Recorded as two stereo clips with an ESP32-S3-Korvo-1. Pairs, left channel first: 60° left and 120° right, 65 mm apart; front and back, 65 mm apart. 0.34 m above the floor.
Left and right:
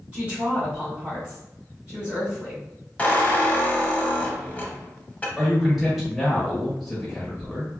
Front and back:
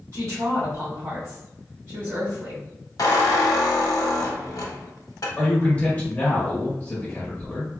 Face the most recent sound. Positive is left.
turn(degrees=-40)